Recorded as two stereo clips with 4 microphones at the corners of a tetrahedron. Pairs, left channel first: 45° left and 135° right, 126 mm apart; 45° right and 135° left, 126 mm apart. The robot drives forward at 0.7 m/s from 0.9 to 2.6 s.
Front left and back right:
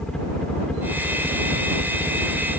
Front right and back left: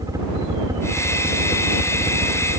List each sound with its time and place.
0.0 s a helicopter: 125° left